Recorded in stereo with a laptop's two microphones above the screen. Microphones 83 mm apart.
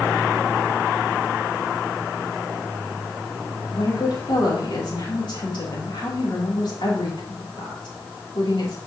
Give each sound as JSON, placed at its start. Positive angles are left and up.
{"t": 3.7, "sound": "a woman speaking", "side_deg": 65, "distance_m": 3.0}